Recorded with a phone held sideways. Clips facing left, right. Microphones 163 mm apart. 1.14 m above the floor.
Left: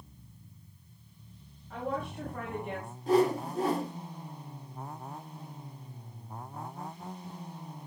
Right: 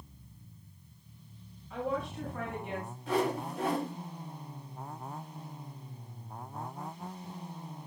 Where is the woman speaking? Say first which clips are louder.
Right 1 dB; 55° left (ahead or behind), 8 m; by 2.9 s 50° left (ahead or behind), 7.5 m.